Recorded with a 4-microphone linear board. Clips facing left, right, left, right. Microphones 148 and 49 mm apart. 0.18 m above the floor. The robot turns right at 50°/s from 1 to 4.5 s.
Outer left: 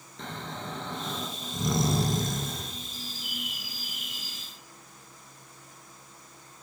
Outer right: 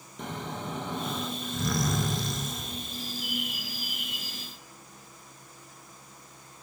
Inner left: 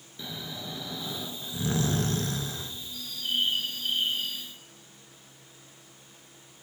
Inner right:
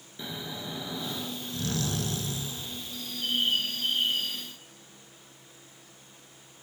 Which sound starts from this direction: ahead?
Snoring, at 0.2 s.